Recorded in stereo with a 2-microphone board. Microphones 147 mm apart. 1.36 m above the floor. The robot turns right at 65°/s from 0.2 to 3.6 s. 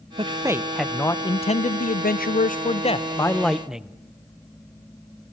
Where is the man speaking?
40° right, 0.7 m; by 4.0 s 175° right, 0.7 m.